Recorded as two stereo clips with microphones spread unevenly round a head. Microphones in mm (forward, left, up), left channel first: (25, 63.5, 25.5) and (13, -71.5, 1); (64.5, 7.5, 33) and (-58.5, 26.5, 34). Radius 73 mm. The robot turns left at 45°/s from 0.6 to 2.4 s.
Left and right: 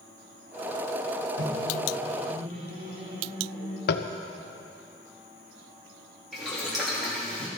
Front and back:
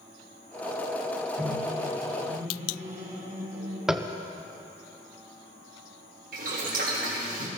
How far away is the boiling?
About 3 m.